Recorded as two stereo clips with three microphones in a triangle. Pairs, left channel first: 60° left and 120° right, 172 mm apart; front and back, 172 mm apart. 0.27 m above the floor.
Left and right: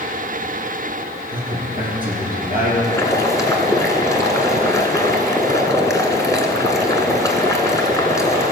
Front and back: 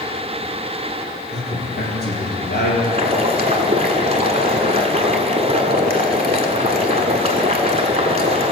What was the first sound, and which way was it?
A man speaking, 20° left.